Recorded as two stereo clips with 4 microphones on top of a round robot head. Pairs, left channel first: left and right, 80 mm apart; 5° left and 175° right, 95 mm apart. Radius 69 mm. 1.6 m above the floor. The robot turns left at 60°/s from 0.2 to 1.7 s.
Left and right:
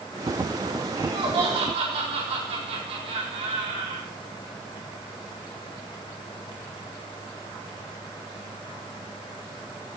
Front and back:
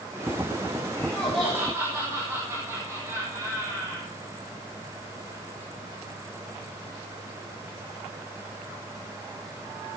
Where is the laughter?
60° right, 4 m; by 4.1 s 105° right, 4 m.